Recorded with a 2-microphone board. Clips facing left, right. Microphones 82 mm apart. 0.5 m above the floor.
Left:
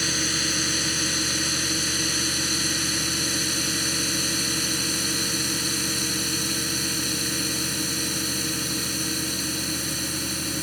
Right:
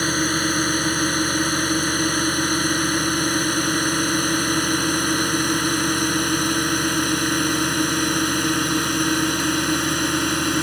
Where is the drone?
45° right (ahead or behind); by 10.6 s 60° right (ahead or behind).